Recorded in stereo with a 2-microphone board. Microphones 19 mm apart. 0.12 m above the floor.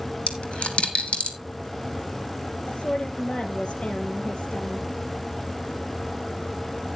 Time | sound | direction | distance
0.3 | a dropped coin | 75° left (ahead or behind) | 1.4 m
2.7 | a woman speaking | 65° left (ahead or behind) | 2.5 m